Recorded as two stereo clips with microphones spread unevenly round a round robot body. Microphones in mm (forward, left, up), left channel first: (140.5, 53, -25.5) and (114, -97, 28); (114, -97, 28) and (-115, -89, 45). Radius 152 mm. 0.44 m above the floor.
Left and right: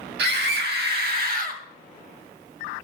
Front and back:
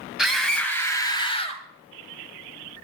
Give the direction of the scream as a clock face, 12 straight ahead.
3 o'clock.